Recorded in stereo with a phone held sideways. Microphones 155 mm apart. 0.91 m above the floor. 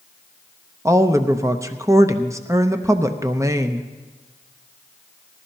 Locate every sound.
0.8 s a woman speaking: 20° right (ahead or behind), 0.6 m